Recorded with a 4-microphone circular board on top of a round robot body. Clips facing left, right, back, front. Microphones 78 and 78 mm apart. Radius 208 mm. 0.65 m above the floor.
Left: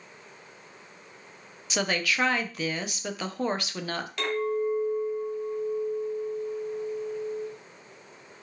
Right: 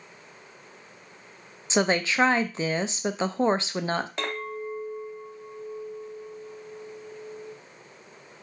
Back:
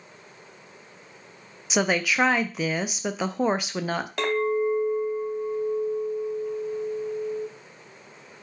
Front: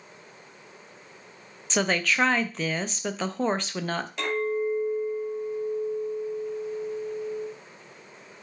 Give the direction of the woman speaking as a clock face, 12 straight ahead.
4 o'clock.